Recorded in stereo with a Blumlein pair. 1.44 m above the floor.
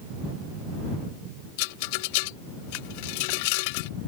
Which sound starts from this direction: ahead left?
A rattle, at 1.6 s.